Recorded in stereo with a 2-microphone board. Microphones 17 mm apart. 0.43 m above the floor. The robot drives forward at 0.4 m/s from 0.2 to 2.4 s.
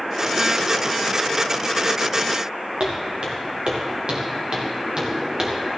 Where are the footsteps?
80° right, 3.5 m; by 5.5 s 40° right (ahead or behind), 2.5 m.